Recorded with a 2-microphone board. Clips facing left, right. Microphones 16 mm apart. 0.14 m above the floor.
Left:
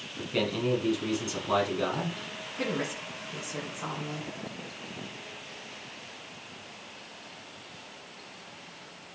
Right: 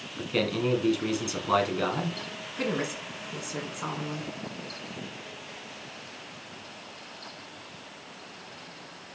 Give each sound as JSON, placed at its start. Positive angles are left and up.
{"t": 0.2, "sound": "a man speaking", "side_deg": -20, "distance_m": 1.2}
{"t": 2.6, "sound": "a woman speaking", "side_deg": -25, "distance_m": 1.8}